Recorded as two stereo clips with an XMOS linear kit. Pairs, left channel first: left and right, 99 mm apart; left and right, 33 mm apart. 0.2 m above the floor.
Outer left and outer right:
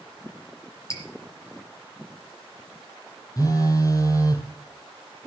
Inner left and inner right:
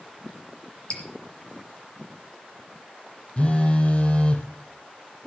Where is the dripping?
30° left (ahead or behind), 4.5 m.